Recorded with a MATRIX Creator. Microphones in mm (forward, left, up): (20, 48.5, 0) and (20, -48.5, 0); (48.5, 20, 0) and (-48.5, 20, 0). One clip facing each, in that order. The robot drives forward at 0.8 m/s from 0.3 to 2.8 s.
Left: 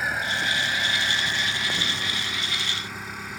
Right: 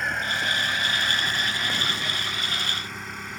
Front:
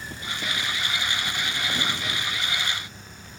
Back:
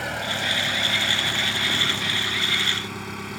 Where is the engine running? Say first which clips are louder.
Even, back 6 dB; 175° left.